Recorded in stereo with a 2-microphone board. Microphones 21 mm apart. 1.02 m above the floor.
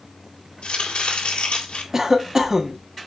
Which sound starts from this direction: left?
Chopping, at 0.6 s.